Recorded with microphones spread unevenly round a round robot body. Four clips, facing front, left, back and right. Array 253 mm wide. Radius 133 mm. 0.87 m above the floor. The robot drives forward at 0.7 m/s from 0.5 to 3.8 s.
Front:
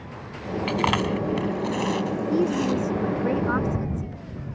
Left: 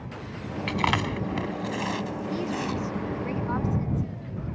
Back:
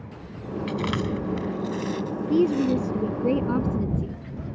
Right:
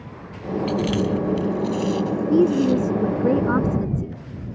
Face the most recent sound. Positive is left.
turn(degrees=-115)